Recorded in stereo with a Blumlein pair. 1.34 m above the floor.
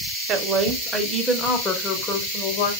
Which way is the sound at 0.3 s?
30° right.